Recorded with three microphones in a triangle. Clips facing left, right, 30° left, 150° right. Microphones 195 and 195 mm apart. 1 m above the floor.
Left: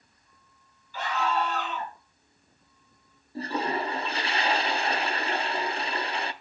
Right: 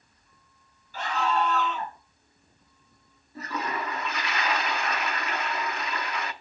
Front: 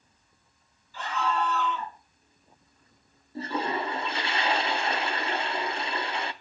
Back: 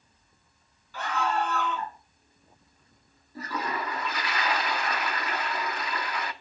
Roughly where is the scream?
Behind right.